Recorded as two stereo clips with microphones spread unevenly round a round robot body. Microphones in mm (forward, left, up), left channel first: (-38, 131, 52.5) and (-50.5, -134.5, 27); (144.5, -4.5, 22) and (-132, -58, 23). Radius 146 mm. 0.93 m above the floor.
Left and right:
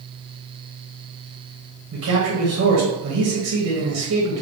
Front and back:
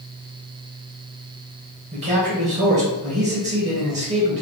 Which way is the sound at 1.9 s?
115° right.